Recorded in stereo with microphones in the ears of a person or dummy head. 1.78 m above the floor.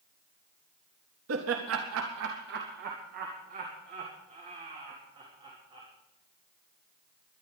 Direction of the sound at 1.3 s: 70° right (ahead or behind).